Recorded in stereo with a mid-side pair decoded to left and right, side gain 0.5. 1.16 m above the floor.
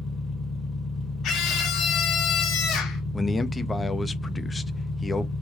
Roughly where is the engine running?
Ahead left.